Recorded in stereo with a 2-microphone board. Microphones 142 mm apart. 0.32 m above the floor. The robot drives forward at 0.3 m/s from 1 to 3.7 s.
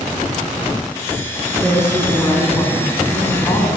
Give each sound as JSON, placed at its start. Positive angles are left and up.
{"t": 1.6, "sound": "a woman speaking", "side_deg": 20, "distance_m": 3.5}